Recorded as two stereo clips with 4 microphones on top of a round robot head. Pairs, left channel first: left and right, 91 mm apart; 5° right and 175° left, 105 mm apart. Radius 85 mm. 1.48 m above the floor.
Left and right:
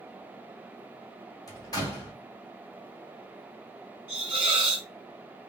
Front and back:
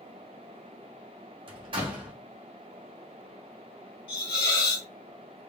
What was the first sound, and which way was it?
A door slam, 135° left.